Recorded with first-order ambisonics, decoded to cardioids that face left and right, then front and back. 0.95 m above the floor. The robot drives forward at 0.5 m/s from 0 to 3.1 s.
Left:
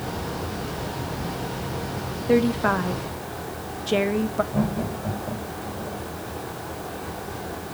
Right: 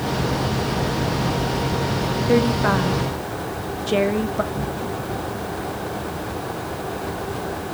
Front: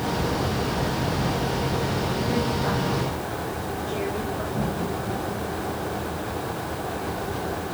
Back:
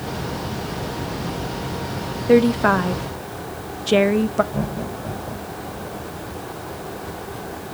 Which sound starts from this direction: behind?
A woman speaking, at 2.3 s.